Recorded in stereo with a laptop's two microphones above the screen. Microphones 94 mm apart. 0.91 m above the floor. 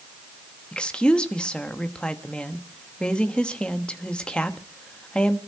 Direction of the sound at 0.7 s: 10° left (ahead or behind).